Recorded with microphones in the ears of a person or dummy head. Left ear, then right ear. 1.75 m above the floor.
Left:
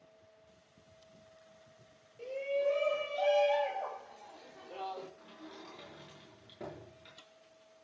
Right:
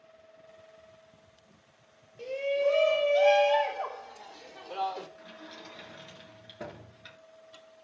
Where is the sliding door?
35° right (ahead or behind), 7.5 m.